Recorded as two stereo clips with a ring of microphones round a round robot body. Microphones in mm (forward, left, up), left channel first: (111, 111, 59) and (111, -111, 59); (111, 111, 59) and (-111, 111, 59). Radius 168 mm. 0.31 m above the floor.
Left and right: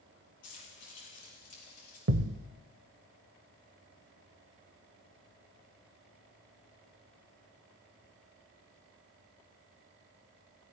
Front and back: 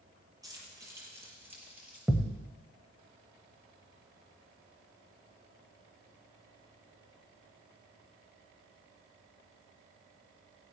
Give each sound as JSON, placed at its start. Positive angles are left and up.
{"t": 0.4, "sound": "keys jangling", "azimuth_deg": 105, "distance_m": 5.5}
{"t": 2.1, "sound": "a thud", "azimuth_deg": -95, "distance_m": 0.8}